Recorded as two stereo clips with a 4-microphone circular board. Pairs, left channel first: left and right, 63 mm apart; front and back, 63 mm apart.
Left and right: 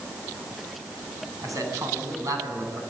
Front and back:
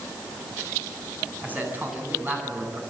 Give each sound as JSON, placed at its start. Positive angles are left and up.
{"t": 1.4, "sound": "a man speaking", "azimuth_deg": -120, "distance_m": 9.0}